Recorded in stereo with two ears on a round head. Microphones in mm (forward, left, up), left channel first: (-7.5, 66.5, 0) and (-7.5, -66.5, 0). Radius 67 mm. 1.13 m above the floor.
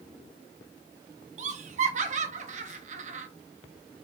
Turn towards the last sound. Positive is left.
turn(degrees=-50)  # may be behind; listen again after turning